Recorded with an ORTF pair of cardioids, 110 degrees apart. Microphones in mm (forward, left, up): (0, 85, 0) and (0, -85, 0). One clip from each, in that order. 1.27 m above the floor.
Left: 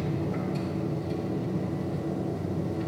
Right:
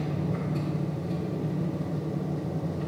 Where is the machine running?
60° left, 1.5 m.